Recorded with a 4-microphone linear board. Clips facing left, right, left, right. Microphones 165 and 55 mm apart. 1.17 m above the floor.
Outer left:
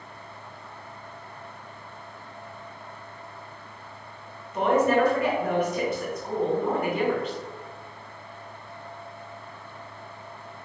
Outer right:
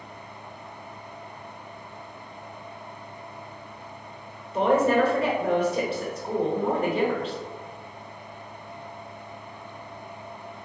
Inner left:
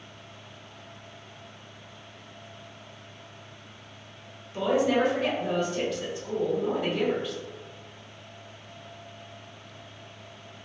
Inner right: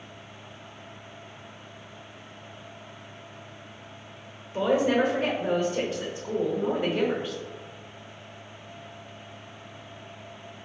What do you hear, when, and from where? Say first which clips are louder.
4.5 s a woman speaking: outer right 1 dB, inner right 1 dB; 30° right (ahead or behind), 1.3 m